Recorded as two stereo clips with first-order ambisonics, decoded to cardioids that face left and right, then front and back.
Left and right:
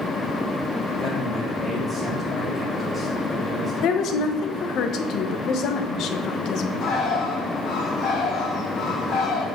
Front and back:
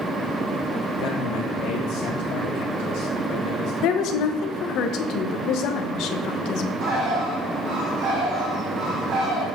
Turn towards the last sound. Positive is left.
turn(degrees=135)